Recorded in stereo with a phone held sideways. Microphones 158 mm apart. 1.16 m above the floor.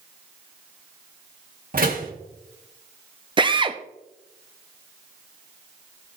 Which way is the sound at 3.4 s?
30° right (ahead or behind).